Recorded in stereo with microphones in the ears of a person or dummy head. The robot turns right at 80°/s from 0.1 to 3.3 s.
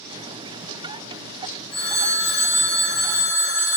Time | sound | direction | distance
1.7 | a phone ringing | 30° left | 1.9 m